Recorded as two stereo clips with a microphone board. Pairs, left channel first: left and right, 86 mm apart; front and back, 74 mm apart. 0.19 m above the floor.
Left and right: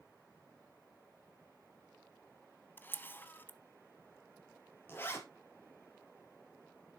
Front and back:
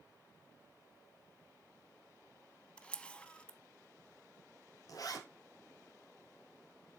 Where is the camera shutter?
60° left, 0.6 m.